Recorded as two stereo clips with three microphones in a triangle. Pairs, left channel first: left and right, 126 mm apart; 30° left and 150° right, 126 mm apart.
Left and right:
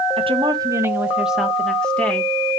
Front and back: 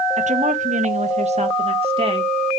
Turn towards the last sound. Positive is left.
turn(degrees=165)